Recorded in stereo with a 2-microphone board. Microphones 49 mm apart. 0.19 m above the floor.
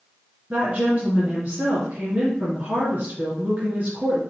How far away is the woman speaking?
About 2.5 m.